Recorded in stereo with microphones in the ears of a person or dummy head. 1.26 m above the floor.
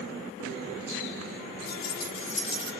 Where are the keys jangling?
70° left (ahead or behind), 1.2 m; by 2.7 s 30° left (ahead or behind), 1.3 m.